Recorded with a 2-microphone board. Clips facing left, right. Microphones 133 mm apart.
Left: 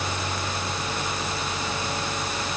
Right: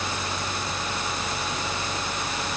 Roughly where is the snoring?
No snoring in this recording.